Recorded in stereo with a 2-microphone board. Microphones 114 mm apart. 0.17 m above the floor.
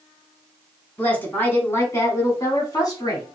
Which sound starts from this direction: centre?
A woman speaking, at 1.0 s.